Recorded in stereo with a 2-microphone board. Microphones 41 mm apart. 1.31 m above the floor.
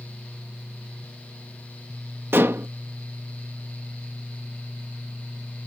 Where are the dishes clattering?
70° right (ahead or behind).